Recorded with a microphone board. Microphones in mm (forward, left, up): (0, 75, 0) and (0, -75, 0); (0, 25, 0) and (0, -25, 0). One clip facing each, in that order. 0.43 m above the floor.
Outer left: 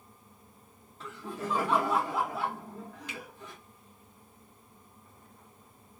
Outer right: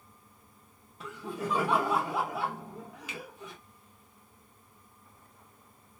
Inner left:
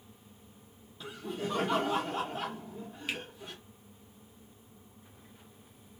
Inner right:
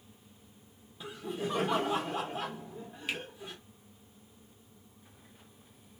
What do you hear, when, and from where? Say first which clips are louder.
1.0 s laughter: outer right 2 dB, inner right 1 dB; 15° right (ahead or behind), 0.8 m
3.1 s a finger snap: outer right 2 dB, inner right 1 dB; 5° right (ahead or behind), 0.9 m